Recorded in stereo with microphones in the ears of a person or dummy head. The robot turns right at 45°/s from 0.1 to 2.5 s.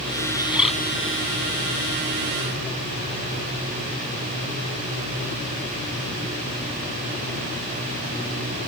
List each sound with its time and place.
0.3 s a bird: 10° right (ahead or behind); by 0.7 s 5° left (ahead or behind)